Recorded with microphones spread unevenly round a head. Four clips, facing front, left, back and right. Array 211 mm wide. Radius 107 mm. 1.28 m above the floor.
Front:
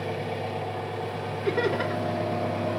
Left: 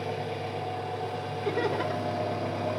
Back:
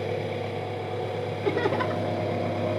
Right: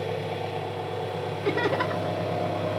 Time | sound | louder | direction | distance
0.0 | an engine running | right 3 dB, back 1 dB | 160° right | 5.5 m
1.4 | laughter | right 3 dB, even | 155° right | 1.7 m